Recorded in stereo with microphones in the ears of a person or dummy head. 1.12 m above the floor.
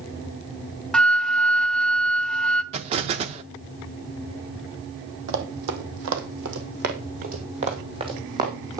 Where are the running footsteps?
65° right (ahead or behind), 2.5 m; by 8.8 s 15° right (ahead or behind), 3.5 m.